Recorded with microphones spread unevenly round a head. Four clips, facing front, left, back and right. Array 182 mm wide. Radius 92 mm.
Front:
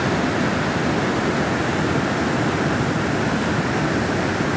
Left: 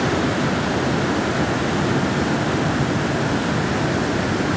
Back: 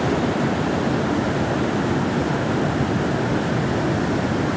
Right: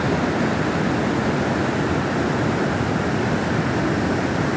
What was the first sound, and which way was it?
Only background noise.